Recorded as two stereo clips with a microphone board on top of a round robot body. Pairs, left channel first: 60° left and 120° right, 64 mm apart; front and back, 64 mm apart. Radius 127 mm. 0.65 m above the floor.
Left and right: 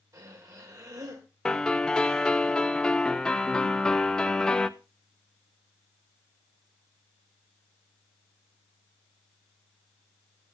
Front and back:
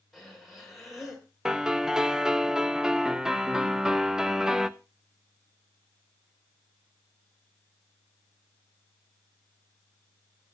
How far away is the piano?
About 0.9 m.